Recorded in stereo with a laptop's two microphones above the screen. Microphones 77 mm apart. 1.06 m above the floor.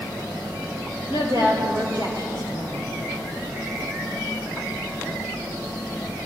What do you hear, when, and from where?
1.1 s a woman speaking: 85° right, 4 m